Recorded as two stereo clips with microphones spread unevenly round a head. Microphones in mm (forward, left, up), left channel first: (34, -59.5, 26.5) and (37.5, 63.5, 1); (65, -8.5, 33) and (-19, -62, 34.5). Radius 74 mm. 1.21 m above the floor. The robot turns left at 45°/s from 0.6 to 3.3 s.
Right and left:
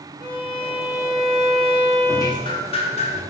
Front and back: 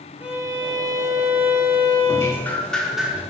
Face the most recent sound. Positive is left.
turn(degrees=-75)